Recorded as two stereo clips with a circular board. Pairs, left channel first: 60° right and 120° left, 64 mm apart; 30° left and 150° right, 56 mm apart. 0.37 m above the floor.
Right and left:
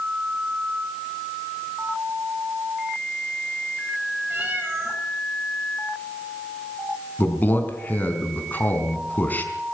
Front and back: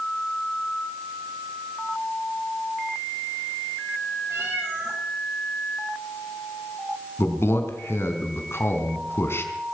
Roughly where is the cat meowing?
Behind.